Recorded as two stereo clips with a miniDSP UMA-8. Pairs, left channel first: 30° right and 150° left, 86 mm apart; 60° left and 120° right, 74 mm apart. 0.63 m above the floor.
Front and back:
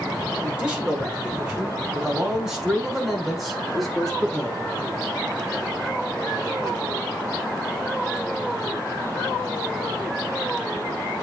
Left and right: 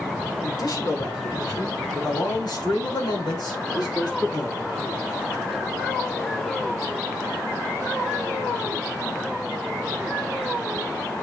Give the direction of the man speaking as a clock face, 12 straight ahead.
9 o'clock.